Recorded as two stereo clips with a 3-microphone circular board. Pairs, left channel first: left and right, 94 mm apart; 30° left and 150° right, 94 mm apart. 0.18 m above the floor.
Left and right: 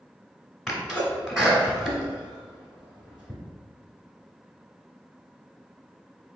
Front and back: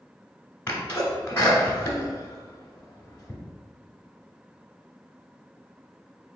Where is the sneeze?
Straight ahead, 1.2 m.